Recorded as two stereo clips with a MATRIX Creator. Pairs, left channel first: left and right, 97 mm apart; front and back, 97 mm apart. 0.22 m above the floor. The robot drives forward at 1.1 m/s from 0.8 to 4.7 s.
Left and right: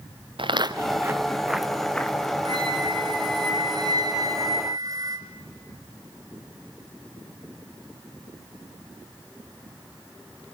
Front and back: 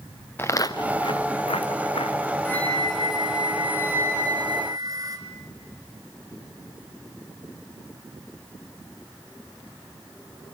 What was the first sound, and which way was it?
Footsteps, 65° right.